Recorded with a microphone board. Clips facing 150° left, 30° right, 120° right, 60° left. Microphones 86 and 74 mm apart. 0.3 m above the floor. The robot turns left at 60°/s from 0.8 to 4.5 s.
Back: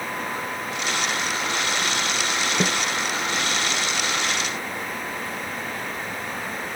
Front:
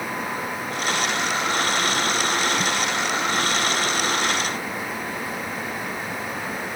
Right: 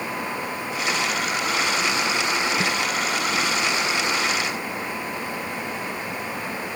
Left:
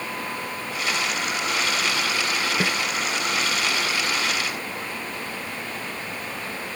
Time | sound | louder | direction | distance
2.6 | a snare drum | back 1 dB, even | 130° left | ?